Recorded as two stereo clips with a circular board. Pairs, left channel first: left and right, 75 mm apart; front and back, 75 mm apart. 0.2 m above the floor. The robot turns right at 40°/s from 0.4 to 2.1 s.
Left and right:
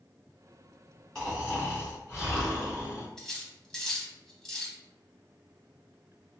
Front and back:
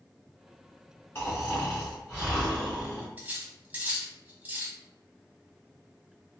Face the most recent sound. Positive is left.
turn(degrees=160)